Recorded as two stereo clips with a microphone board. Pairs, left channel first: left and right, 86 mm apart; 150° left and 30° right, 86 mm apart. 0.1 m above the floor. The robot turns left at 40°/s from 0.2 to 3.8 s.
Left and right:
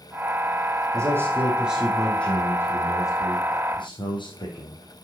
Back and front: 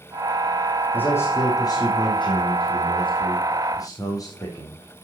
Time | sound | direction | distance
0.9 | a man speaking | 140° right | 4 m